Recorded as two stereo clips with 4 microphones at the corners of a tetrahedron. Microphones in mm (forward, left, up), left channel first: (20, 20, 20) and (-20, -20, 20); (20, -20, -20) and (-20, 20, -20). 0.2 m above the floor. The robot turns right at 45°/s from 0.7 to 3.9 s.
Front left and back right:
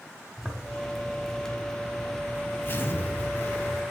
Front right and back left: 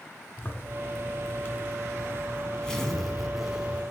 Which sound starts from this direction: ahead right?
A zipper, at 0.4 s.